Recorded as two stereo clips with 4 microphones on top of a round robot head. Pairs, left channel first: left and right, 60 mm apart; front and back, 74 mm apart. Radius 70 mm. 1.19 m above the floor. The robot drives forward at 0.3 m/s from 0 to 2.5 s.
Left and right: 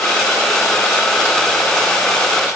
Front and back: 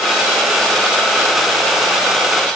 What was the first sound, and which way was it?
Only background noise.